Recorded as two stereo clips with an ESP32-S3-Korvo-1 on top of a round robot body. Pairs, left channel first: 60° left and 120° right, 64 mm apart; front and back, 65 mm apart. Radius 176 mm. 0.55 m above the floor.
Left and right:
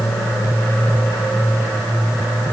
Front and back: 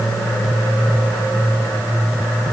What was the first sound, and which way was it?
Only background noise.